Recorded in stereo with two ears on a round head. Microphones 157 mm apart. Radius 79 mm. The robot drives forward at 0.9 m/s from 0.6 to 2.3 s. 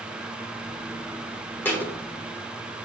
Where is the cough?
I don't hear a cough.